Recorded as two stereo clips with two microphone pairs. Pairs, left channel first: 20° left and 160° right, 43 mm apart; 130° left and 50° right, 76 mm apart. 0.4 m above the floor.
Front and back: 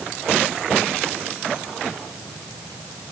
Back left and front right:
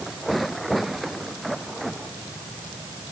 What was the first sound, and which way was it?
Only background noise.